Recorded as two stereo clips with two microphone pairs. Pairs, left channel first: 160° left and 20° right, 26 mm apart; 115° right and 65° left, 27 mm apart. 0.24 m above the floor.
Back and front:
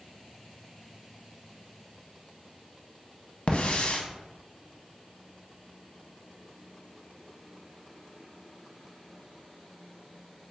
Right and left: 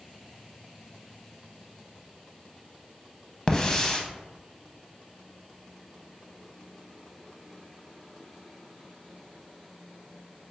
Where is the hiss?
Straight behind, 0.5 m.